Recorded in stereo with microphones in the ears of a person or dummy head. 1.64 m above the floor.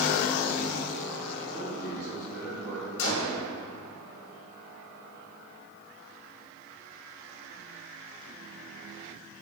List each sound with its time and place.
1.5 s a man speaking: 15° right (ahead or behind), 2.5 m; by 2.9 s 10° right (ahead or behind), 4.5 m
3.0 s a gunshot: 80° left, 1.9 m